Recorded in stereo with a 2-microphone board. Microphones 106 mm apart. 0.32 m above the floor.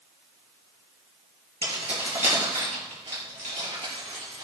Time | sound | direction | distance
1.6 | keys jangling | 70° right (ahead or behind) | 3.5 m